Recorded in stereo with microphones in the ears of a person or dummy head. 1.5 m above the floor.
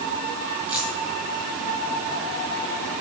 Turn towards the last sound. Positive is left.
turn(degrees=-10)  # may be behind; listen again after turning